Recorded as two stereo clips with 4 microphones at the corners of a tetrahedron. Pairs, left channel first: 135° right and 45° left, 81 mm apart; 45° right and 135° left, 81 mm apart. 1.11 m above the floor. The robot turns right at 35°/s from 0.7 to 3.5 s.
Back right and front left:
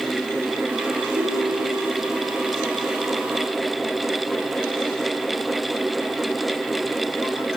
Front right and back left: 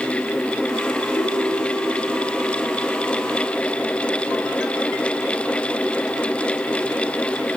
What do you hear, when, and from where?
1.1 s a ringtone: 10° left, 6 m; by 2.0 s 40° left, 6 m